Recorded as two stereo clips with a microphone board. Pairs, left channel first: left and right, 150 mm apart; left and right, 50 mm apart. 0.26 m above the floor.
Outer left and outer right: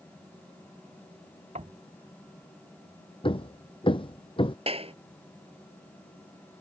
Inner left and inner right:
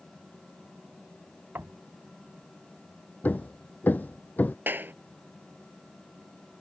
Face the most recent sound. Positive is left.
turn(degrees=-40)  # may be behind; listen again after turning